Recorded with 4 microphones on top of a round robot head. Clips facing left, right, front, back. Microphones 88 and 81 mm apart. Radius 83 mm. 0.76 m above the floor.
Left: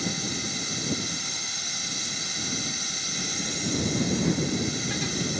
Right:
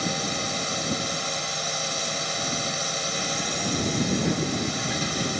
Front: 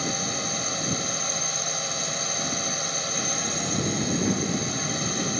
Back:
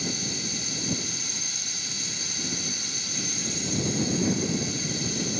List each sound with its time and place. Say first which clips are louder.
0.0 s a drone: right 4 dB, front 4 dB; 50° right